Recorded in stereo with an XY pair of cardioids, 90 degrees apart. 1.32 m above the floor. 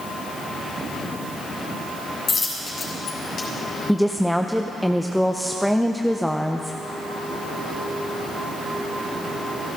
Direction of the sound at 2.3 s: 50° left.